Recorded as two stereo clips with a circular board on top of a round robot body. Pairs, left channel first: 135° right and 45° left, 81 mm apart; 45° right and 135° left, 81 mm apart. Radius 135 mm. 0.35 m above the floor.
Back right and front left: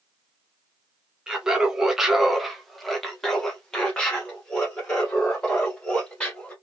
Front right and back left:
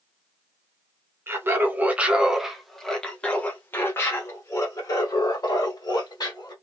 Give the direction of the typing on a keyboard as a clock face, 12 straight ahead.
No typing on a keyboard in this recording.